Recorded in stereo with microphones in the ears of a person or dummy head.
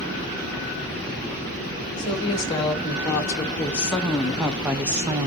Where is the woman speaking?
25° left (ahead or behind), 2.5 m; by 5.3 s 25° right (ahead or behind), 1.2 m.